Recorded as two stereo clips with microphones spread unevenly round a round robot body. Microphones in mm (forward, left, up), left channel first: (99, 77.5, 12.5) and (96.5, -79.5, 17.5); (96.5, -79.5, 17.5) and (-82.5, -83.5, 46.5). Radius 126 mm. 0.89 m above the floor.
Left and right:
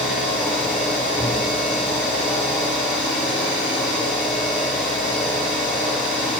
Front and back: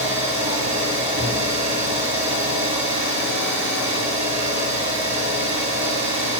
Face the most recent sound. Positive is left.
turn(degrees=170)